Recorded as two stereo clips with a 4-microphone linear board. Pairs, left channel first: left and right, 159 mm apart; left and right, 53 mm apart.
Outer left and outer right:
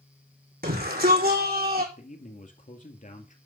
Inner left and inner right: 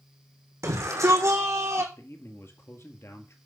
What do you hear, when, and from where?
0.6 s a shout: 75° right (ahead or behind), 4.5 m; by 1.9 s 70° right (ahead or behind), 4 m
1.9 s a man speaking: 55° left (ahead or behind), 2.0 m